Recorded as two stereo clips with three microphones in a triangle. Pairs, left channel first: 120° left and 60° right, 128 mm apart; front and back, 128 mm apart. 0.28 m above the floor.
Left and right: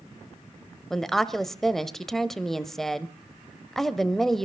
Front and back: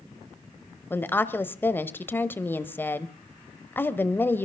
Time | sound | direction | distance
0.9 | a woman speaking | 35° left | 1.1 m